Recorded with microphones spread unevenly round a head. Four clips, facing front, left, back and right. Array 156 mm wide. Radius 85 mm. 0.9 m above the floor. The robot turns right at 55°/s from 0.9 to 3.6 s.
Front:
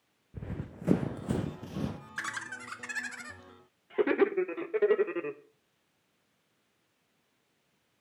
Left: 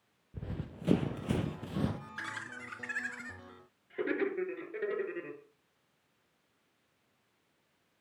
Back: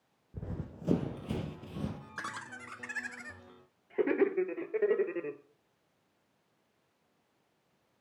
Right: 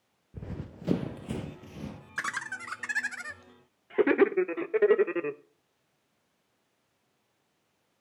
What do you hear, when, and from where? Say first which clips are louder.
0.3 s running footsteps: right 1 dB, front 1 dB; 105° right, 0.9 m; by 2.0 s 70° left, 1.1 m
2.2 s laughter: right 7 dB, front 3 dB; 130° right, 0.5 m; by 5.4 s 50° right, 0.5 m